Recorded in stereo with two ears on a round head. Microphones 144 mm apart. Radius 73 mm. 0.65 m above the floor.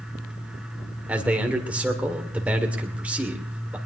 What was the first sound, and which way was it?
A man speaking, 10° right (ahead or behind).